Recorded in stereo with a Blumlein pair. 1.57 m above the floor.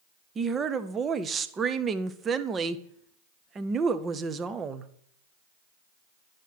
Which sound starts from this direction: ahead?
A woman speaking, at 0.3 s.